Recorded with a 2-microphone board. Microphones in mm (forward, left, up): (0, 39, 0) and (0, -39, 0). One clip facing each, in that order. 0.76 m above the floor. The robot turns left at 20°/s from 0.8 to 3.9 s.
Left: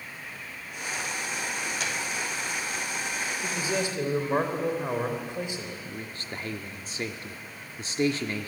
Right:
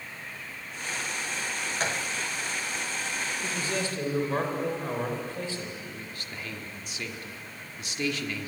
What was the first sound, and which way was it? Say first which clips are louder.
A gunshot: right 2 dB; 40° right (ahead or behind).